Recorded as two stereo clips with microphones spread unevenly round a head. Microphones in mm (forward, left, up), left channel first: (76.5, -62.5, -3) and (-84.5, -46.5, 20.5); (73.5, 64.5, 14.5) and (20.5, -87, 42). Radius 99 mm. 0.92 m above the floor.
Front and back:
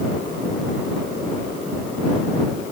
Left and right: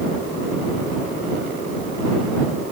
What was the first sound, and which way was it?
Only background noise.